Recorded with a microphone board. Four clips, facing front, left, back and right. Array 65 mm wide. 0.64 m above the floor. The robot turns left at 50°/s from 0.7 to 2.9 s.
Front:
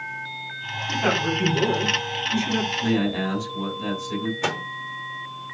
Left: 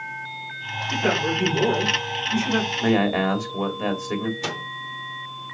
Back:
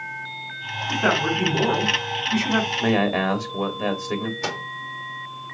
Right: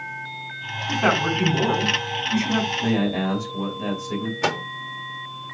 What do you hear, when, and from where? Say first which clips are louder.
0.9 s a man speaking: right 2 dB, back 2 dB; 80° right, 5 m; by 2.7 s 170° right, 5 m
2.8 s a man speaking: left 2 dB, back 2 dB; 150° left, 2.5 m; by 4.3 s 145° left, 2.5 m
4.4 s a microwave: right 6 dB, front 2 dB; 75° right, 1.2 m